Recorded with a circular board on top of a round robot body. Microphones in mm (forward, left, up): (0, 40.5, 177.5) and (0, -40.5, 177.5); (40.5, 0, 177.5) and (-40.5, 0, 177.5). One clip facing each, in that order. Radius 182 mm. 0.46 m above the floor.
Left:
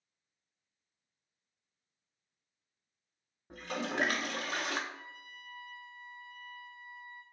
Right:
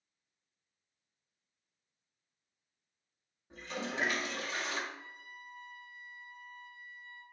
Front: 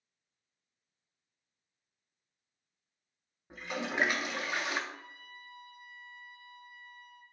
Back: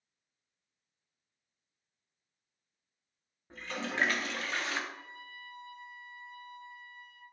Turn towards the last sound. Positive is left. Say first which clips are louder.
# even, back 1 dB
turn(degrees=115)